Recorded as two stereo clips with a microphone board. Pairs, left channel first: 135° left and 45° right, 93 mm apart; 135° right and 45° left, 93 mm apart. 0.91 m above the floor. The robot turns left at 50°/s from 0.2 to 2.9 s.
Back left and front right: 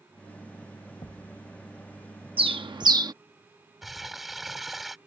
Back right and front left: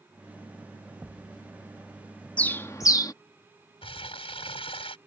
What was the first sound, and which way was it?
A thud, 120° left.